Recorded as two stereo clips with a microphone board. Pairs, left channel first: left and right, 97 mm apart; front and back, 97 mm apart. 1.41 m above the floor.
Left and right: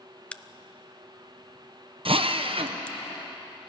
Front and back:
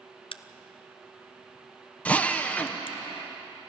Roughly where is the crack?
Ahead.